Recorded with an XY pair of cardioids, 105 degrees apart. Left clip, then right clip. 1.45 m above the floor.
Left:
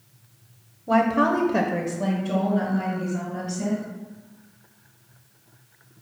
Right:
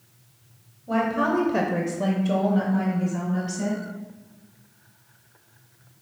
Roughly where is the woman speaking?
Ahead left.